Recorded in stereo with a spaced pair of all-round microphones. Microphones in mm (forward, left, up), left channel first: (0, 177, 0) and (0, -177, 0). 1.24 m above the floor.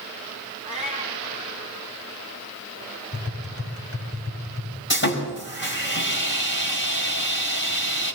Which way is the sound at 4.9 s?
30° left (ahead or behind).